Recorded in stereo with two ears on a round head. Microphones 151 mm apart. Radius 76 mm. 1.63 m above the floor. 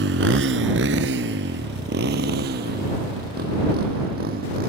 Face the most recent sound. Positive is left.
turn(degrees=-60)  # may be behind; listen again after turning